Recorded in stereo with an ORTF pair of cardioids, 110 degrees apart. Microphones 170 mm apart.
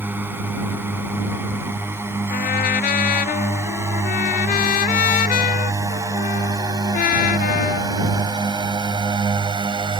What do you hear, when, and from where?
0.0 s a drone: 10° right; by 10.0 s 30° right
2.3 s a trumpet: 60° left